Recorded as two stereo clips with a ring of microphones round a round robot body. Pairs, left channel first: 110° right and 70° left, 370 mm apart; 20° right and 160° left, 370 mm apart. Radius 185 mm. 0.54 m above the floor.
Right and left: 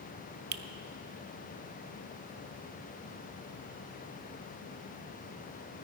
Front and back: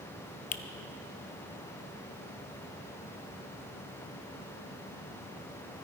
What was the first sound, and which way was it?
A finger snap, 30° left.